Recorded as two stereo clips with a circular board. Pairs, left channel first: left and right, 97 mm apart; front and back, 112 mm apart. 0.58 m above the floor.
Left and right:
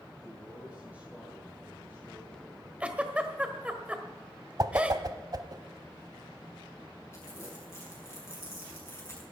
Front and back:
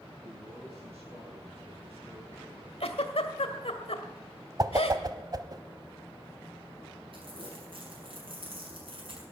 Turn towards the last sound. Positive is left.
turn(degrees=150)